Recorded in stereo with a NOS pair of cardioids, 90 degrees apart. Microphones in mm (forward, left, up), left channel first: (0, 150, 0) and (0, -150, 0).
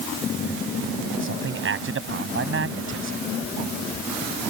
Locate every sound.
1.2 s a man speaking: 45° right